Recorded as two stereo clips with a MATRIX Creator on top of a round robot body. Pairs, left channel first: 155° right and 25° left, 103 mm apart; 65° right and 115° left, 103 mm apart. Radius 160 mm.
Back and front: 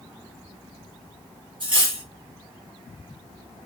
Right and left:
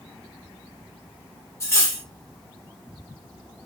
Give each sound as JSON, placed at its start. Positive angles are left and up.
{"t": 1.6, "sound": "cutlery clinking", "azimuth_deg": -10, "distance_m": 1.6}